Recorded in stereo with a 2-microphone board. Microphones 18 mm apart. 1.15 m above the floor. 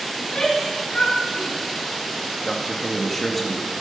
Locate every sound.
0.2 s a shout: 65° left (ahead or behind), 5 m; by 1.6 s 75° left (ahead or behind), 3.5 m
2.5 s a man speaking: 10° left (ahead or behind), 2 m